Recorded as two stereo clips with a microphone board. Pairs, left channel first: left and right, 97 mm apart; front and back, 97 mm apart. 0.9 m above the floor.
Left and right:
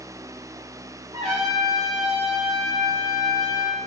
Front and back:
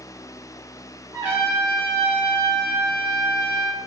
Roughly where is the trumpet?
Behind right.